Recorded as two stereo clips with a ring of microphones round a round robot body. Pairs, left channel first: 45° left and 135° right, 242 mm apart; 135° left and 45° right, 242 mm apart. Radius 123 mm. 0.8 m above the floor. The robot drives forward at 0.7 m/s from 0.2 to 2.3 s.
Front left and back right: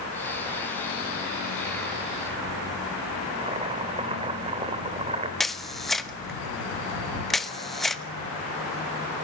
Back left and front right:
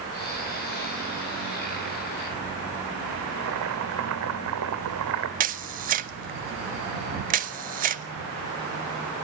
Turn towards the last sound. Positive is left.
turn(degrees=-45)